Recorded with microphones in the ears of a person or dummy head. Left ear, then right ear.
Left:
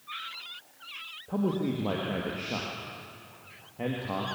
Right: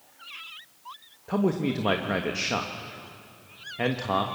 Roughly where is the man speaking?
Right.